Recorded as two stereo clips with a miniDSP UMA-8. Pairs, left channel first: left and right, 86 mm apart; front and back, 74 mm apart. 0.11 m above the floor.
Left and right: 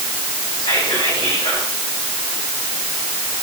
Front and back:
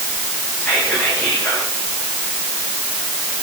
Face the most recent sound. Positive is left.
turn(degrees=70)